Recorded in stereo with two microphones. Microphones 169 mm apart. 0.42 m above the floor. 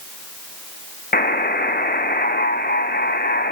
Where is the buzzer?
60° left (ahead or behind), 1.0 m.